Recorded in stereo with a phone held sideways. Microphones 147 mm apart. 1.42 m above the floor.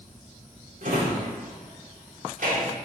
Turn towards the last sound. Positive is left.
turn(degrees=-65)  # may be behind; listen again after turning